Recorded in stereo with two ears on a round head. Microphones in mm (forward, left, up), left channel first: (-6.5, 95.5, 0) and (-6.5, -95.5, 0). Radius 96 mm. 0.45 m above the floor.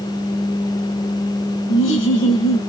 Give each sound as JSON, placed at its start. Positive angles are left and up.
{"t": 1.7, "sound": "laughter", "side_deg": 60, "distance_m": 2.0}